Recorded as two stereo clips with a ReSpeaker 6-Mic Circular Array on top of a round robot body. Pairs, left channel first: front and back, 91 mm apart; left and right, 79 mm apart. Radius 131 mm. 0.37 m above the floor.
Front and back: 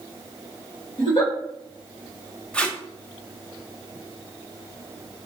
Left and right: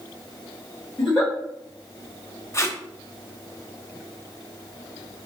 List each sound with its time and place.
1.0 s a giggle: 20° left, 2 m
2.5 s tape being pulled: 70° left, 0.9 m